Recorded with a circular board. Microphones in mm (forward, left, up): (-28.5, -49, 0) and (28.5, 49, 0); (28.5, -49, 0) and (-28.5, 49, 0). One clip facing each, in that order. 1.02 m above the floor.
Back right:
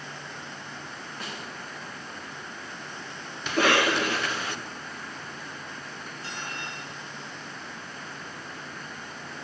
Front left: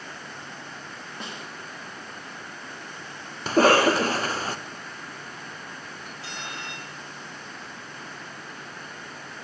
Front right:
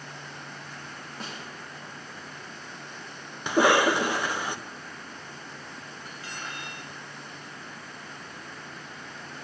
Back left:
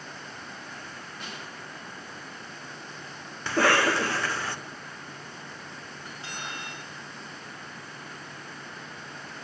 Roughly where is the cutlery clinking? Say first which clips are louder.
Even, back left 1 dB; ahead left.